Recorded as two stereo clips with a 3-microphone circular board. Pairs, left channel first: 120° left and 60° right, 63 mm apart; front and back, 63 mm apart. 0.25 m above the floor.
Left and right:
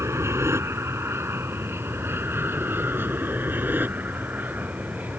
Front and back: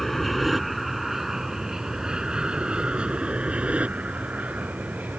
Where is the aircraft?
90° right; by 5.2 s 120° right.